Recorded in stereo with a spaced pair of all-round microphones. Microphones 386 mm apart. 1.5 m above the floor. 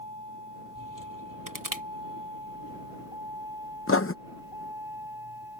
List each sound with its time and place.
0.0 s a vehicle: 50° left (ahead or behind); by 5.6 s 70° left (ahead or behind)
1.5 s crushing: 55° right (ahead or behind)
3.9 s writing: 35° left (ahead or behind)